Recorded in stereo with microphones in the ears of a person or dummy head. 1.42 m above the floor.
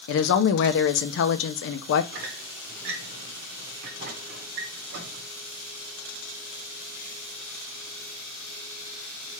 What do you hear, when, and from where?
0.1 s a woman speaking: 75° left (ahead or behind), 0.5 m
2.1 s a squeak: 55° right (ahead or behind), 0.8 m